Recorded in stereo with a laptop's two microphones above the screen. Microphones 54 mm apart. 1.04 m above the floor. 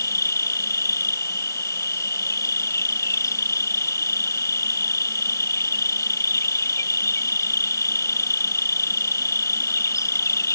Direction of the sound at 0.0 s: 75° left (ahead or behind).